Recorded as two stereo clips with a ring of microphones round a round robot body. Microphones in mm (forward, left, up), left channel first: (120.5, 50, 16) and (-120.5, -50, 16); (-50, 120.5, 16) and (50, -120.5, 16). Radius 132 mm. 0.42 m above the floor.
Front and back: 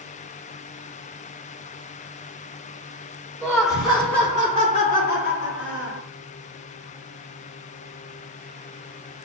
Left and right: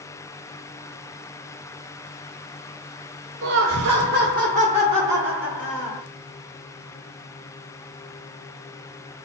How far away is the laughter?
About 1.3 m.